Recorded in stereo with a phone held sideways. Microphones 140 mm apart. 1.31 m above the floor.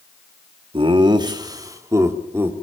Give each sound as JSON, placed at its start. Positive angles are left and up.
{"t": 0.7, "sound": "laughter", "side_deg": -40, "distance_m": 2.5}